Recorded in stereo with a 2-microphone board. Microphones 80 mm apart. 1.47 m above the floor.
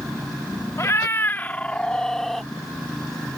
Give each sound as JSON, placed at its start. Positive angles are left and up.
{"t": 0.8, "sound": "a cat meowing", "side_deg": 35}